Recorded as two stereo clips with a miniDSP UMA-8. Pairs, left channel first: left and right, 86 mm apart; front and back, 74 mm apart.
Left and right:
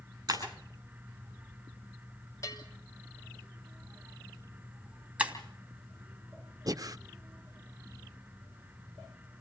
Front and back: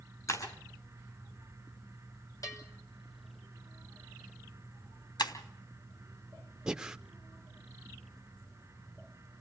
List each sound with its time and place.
0.3 s breaking glass: 45° right, 10 m
2.4 s a bell: 40° left, 5 m
5.2 s breaking glass: 15° right, 3 m
6.7 s breathing: 100° right, 0.7 m